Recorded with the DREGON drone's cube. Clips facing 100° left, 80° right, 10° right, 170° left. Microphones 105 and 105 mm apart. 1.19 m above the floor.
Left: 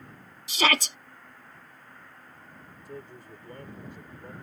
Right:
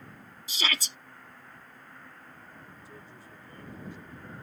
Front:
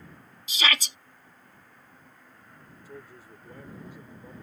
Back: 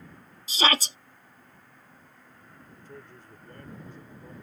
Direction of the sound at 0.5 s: 115° left.